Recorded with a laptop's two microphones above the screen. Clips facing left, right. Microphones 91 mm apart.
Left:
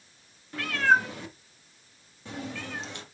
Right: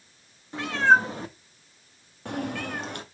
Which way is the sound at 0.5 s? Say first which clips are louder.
Right 3 dB; 25° right (ahead or behind).